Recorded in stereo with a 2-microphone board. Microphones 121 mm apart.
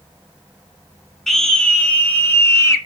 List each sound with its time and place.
1.3 s a scream: 5° left (ahead or behind), 2.5 m; by 2.8 s 25° left (ahead or behind), 2.5 m